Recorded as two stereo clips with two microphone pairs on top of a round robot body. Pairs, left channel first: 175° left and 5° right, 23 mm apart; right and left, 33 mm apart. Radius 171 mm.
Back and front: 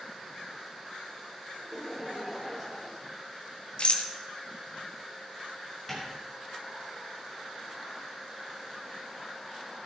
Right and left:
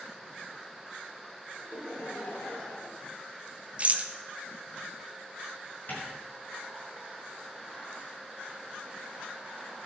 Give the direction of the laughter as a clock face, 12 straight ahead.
3 o'clock.